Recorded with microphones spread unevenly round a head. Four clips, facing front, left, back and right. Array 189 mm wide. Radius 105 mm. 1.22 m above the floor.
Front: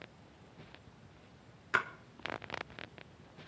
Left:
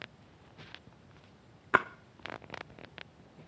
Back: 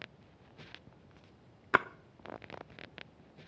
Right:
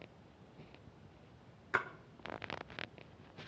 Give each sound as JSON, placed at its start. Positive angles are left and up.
{"t": 1.7, "sound": "a splash", "azimuth_deg": 125, "distance_m": 0.5}